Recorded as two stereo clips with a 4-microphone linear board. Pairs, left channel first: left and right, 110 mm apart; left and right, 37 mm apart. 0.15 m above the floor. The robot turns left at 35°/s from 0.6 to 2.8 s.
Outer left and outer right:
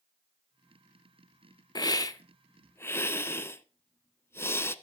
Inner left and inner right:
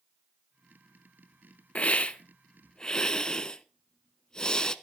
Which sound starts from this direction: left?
A hiss, at 1.8 s.